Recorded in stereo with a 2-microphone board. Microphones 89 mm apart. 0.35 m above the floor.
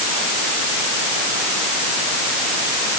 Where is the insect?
No insect in this recording.